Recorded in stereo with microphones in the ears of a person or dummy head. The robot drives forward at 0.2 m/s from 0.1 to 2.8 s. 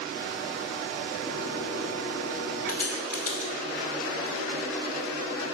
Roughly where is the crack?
Centre.